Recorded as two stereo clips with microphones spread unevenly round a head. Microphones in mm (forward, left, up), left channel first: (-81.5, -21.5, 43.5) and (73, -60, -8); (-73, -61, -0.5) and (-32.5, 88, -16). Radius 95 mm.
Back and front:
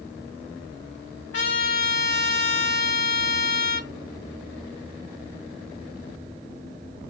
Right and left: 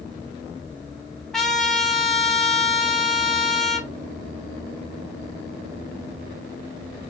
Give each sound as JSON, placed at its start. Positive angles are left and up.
{"t": 1.3, "sound": "a trumpet", "azimuth_deg": 170, "distance_m": 2.5}